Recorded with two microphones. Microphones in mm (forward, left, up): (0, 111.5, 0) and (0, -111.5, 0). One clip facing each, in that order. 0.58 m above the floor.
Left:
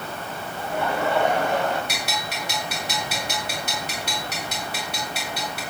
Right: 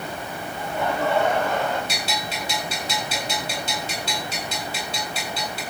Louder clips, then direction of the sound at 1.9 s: Right 1 dB; 65° left (ahead or behind).